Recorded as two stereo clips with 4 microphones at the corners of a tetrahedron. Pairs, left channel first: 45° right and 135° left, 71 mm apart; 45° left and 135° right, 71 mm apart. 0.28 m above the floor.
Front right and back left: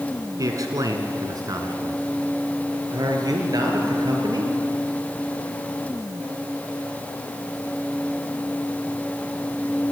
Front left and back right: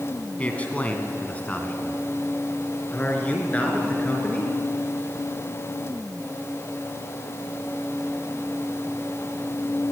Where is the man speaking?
110° left, 2 m; by 4.5 s 115° left, 4.5 m.